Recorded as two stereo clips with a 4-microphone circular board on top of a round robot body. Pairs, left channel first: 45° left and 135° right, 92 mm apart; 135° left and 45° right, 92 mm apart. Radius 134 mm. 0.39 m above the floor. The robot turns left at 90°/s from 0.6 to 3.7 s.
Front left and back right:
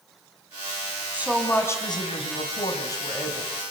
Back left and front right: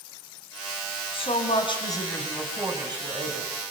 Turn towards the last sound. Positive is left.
turn(degrees=-75)